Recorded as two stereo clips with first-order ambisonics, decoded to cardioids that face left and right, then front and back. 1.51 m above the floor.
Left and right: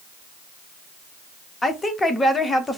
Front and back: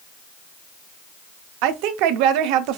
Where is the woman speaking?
170° left, 0.5 m.